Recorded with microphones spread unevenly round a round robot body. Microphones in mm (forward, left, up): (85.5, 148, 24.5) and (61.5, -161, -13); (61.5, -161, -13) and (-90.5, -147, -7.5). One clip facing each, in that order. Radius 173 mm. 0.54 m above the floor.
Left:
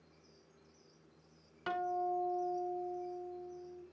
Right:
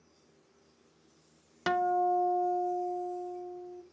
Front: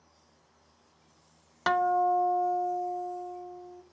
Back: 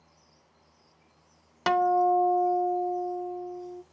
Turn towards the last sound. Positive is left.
turn(degrees=-110)